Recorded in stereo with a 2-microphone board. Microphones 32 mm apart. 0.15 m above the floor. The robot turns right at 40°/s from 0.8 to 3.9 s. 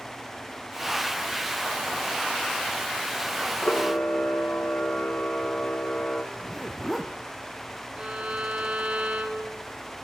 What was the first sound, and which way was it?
A camera shutter, 75° left (ahead or behind).